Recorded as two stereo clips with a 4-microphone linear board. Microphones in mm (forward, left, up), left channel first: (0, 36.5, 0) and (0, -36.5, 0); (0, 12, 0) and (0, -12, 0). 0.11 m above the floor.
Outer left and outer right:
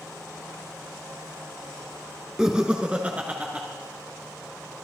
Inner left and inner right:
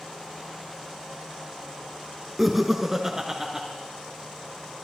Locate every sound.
2.4 s laughter: 10° right (ahead or behind), 1.3 m; by 3.7 s 25° right (ahead or behind), 1.5 m